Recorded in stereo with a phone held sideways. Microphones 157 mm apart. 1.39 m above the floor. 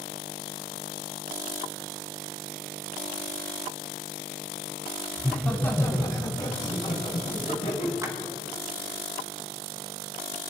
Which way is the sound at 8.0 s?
20° right (ahead or behind).